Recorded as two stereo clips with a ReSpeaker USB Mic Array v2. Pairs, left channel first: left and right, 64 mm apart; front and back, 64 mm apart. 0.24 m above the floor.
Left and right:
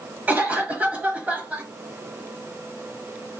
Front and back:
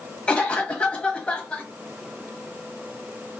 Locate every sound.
0.3 s a cough: 55° right, 1.0 m